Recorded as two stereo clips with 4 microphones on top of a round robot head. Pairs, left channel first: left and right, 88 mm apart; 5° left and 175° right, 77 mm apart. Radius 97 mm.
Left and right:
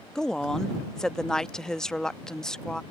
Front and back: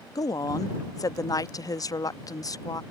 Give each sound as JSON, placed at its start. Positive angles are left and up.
{"t": 0.1, "sound": "a woman speaking", "azimuth_deg": 10}